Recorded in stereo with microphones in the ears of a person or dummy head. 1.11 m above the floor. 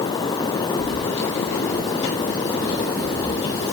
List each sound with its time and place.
0.8 s keys jangling: 60° left (ahead or behind), 5 m; by 3.8 s 65° left (ahead or behind), 3.5 m